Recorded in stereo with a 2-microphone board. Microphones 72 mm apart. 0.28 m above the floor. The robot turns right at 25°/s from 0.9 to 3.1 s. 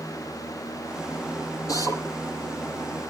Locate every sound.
1.7 s a drill: 60° left (ahead or behind), 7.5 m; by 2.0 s 50° left (ahead or behind), 7.5 m